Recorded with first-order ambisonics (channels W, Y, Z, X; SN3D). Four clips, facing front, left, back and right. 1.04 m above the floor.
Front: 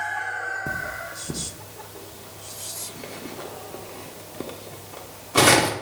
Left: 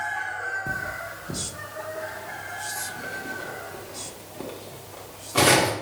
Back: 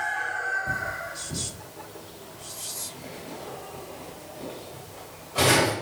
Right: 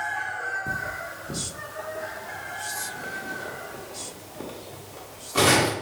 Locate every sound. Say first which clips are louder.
0.7 s cutlery clinking: even, even; 5° left, 0.7 m